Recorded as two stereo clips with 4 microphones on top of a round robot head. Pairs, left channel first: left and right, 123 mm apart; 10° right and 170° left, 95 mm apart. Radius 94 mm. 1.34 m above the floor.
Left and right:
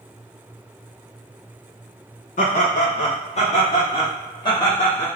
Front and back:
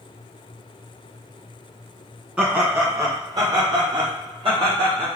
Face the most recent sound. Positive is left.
turn(degrees=150)